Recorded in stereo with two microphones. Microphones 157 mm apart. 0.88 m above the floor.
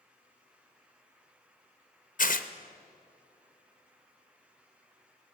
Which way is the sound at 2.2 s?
60° left (ahead or behind).